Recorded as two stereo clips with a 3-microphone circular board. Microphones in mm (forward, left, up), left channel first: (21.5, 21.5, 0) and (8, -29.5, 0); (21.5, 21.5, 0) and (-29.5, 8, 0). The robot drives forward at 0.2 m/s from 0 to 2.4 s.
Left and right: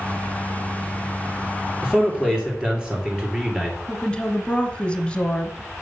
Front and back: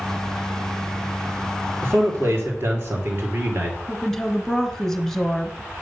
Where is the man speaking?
175° right, 2.5 m.